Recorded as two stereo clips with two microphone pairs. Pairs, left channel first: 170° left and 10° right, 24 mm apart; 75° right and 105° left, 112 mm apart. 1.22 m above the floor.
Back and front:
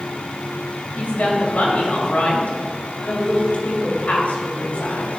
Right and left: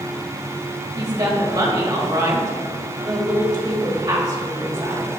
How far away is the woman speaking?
About 2.5 m.